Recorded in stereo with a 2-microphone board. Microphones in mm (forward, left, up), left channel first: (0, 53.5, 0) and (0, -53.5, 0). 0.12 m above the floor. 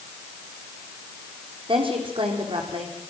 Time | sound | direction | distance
1.7 | a woman speaking | 50° right (ahead or behind) | 6.5 m